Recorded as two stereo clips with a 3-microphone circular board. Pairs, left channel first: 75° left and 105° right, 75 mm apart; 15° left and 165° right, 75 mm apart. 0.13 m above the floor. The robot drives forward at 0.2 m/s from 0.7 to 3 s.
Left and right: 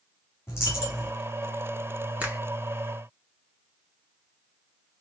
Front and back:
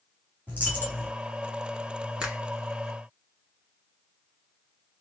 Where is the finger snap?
115° right, 1.1 m; by 2.4 s 120° right, 1.1 m.